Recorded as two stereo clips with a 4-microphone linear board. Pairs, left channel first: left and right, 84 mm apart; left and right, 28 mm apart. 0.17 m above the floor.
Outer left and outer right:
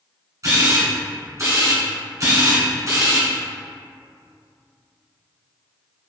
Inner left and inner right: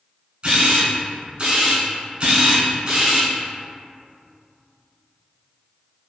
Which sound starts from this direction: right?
A camera shutter, at 0.4 s.